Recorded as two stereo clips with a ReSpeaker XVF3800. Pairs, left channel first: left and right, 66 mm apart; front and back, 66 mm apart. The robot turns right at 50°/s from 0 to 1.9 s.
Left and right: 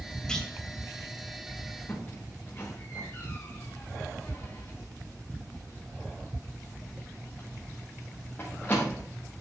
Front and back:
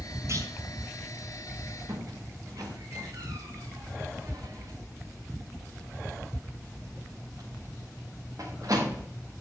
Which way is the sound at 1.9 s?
150° left.